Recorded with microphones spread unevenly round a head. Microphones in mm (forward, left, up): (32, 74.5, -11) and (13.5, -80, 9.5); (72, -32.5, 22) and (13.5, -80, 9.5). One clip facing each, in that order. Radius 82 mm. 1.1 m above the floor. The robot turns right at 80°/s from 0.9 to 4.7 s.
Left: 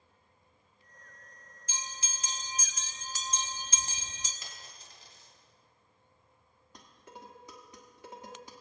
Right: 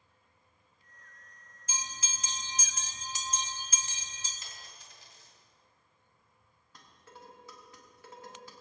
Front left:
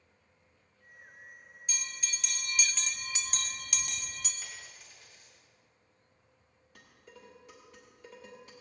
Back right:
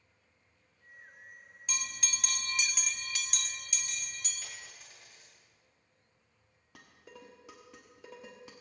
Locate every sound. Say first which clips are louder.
1.7 s a bell: right 2 dB, back right 2 dB; 145° right, 0.9 m; by 4.3 s 65° left, 0.9 m
4.4 s a dropped coin: left 1 dB, front left 1 dB; 125° left, 2.5 m; by 5.3 s 145° left, 2.5 m
6.8 s dishes clattering: left 3 dB, back right 2 dB; 160° left, 1.1 m